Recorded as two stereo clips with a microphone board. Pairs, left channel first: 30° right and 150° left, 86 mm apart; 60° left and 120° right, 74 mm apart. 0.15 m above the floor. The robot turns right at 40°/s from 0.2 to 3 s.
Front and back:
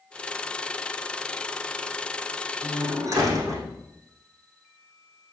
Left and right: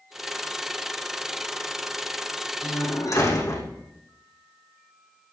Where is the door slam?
85° left, 5.5 m; by 3.7 s 100° left, 5.5 m.